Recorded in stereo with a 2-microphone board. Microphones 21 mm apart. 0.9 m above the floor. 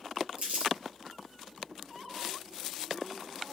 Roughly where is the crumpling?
Right.